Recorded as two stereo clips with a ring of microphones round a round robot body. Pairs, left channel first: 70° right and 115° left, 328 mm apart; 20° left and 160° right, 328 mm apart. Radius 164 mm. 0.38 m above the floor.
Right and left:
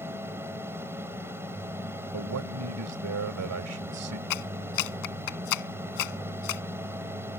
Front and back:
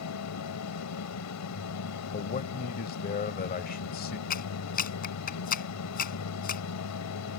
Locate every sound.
0.0 s an aircraft: 30° left
2.1 s a man speaking: 80° left
4.3 s a clap: 40° right